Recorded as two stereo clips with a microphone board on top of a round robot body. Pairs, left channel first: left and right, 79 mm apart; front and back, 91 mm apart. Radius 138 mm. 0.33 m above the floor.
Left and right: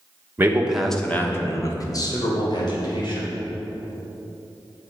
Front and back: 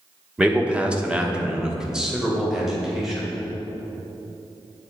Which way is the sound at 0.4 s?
115° right.